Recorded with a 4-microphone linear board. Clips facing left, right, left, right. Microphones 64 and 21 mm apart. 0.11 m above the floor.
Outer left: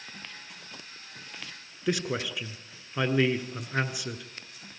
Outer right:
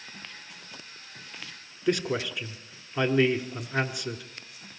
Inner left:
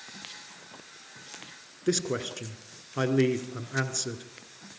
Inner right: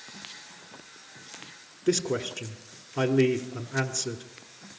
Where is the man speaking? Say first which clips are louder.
Outer right 3 dB, inner right 2 dB; 5° left (ahead or behind), 1.2 m.